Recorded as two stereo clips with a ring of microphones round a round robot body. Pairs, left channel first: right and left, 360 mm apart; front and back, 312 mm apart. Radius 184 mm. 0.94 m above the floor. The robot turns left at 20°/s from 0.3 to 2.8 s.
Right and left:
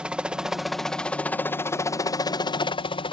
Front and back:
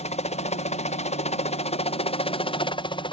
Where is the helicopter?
10° left; by 3.1 s 40° right.